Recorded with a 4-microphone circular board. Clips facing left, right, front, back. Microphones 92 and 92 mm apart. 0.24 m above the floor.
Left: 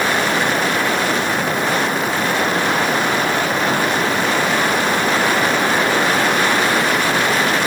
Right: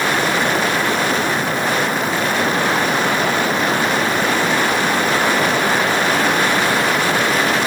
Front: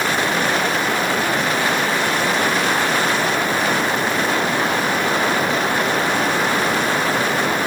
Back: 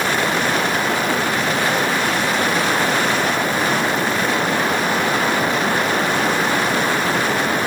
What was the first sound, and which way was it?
Only background noise.